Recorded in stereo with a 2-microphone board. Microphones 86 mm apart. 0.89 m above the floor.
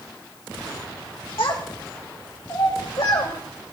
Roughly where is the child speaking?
Left.